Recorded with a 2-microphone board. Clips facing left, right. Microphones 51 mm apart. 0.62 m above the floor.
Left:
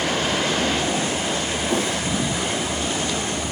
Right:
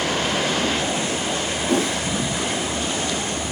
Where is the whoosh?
70° right (ahead or behind), 1.2 m.